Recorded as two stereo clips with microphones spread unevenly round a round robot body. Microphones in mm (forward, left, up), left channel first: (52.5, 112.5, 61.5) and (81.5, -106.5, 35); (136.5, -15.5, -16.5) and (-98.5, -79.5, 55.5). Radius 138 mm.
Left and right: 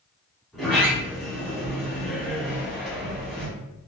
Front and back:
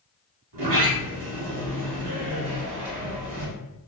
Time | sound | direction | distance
0.5 | a sliding door | 175° right | 1.0 m